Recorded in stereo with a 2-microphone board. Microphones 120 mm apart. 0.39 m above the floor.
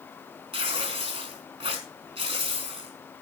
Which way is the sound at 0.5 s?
55° right (ahead or behind).